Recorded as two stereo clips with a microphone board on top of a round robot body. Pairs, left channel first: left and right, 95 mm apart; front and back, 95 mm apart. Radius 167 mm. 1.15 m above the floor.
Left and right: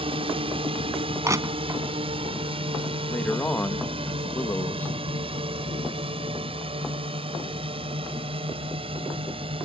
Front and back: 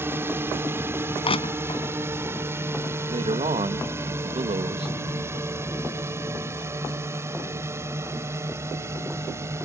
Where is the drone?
115° right.